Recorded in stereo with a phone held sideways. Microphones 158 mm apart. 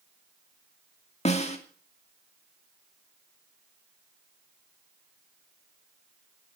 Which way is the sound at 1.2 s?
45° left (ahead or behind).